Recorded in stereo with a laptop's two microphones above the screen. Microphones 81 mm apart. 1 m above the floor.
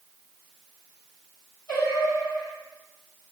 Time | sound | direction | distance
1.7 | singing | 45° left (ahead or behind) | 1.9 m